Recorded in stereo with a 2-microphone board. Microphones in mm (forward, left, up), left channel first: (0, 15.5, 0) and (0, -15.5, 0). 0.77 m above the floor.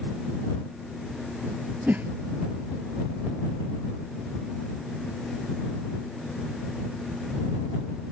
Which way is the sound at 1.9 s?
75° right (ahead or behind).